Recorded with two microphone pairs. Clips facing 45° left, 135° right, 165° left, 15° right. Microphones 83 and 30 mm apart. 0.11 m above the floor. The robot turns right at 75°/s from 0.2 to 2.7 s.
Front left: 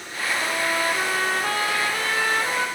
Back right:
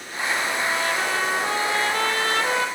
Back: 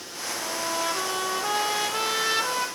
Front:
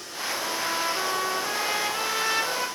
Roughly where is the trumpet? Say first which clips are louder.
Front left 2 dB, even; left.